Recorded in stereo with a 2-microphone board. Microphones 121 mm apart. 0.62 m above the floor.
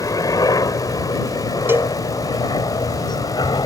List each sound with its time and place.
0.0 s a helicopter: 30° left (ahead or behind); by 3.7 s 35° left (ahead or behind)
1.7 s a cowbell: 20° right (ahead or behind)